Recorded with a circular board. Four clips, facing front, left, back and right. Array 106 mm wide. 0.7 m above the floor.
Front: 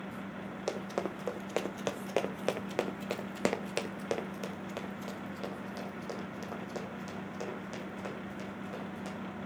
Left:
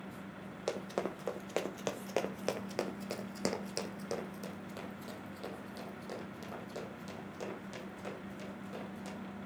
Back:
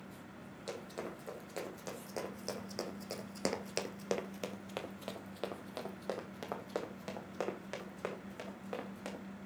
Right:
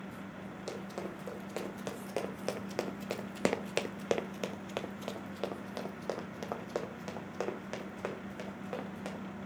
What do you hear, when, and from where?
0.7 s running footsteps: 35° left, 1.5 m; by 9.2 s 120° right, 3 m